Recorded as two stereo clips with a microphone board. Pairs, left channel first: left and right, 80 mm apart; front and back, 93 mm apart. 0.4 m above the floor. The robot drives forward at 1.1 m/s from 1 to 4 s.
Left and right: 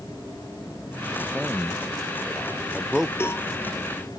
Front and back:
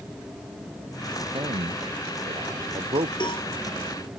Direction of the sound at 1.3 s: 170° right.